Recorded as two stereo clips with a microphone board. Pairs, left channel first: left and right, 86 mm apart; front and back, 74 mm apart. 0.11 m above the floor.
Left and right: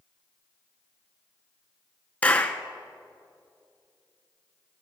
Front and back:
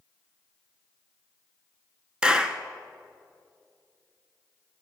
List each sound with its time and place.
2.2 s a clap: 120° left, 0.9 m